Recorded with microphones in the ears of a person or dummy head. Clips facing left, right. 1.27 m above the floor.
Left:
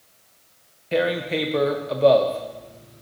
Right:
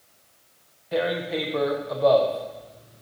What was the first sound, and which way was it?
Tearing paper, 35° left (ahead or behind).